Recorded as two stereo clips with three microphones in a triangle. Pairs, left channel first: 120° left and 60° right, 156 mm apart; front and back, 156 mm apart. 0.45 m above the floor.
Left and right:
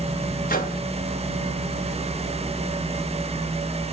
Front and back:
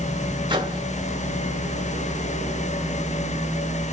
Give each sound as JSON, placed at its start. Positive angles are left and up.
{"t": 0.5, "sound": "a microwave", "azimuth_deg": 120, "distance_m": 2.5}